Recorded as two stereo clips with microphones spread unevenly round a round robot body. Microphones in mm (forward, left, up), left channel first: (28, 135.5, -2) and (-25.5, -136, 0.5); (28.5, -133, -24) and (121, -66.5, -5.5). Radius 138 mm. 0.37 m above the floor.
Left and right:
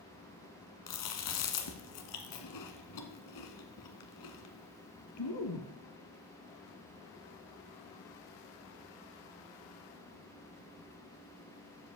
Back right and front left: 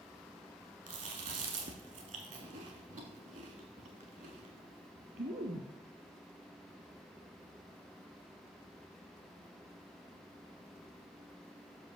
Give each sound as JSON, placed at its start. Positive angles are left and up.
{"t": 0.9, "sound": "chewing", "azimuth_deg": 60, "distance_m": 1.3}